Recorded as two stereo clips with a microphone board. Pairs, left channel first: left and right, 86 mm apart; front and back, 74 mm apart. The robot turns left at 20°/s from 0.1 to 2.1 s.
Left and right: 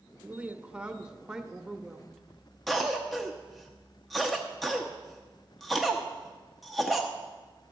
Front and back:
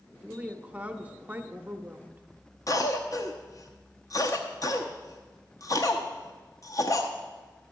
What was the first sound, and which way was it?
A woman speaking, 130° right.